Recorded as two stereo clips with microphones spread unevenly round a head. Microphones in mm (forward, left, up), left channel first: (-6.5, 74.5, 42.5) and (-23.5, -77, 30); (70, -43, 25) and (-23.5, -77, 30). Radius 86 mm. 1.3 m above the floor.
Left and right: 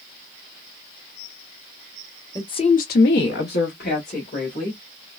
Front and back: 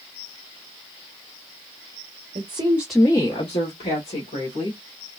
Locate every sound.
2.4 s a woman speaking: 155° left, 0.8 m; by 4.8 s 35° left, 2 m